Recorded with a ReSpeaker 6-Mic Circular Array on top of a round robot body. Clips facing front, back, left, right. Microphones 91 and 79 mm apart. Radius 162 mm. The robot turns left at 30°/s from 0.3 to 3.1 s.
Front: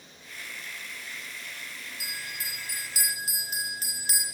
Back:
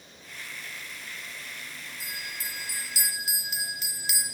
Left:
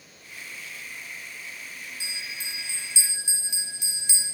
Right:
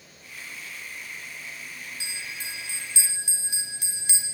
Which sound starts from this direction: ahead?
A bell, at 2.0 s.